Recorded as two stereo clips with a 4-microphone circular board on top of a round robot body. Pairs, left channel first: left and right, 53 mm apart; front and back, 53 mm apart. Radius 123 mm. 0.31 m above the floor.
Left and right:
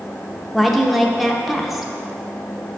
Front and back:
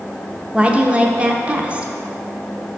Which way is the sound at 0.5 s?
175° right.